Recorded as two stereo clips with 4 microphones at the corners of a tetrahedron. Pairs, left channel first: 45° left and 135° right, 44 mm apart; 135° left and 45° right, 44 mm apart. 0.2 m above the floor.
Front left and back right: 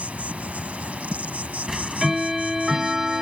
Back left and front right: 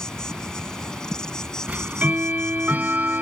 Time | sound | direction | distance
0.0 | an insect | 160° right | ?
1.7 | ticking | 60° right | ?